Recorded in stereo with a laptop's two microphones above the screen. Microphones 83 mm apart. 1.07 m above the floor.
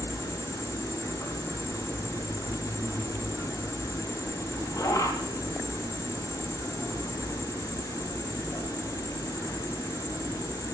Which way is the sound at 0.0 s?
50° left (ahead or behind).